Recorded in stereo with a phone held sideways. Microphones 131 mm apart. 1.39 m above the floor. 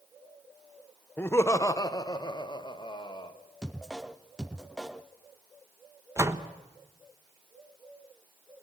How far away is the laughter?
About 1.0 m.